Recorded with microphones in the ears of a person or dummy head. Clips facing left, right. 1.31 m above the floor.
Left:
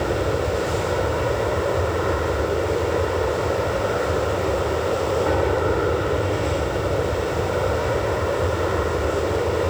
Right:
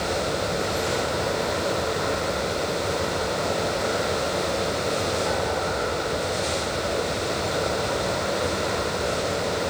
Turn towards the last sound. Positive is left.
turn(degrees=55)  # may be behind; listen again after turning